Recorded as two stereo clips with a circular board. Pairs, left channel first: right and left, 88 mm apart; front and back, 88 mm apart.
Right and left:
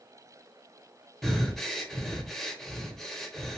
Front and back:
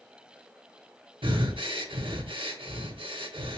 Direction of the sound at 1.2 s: Straight behind.